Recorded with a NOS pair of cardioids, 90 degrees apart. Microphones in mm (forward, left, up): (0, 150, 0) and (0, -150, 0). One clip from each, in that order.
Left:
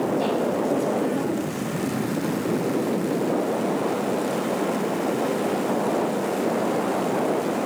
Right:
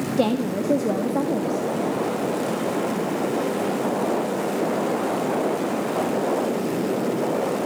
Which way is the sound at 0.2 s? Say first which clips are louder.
Even; 60° right.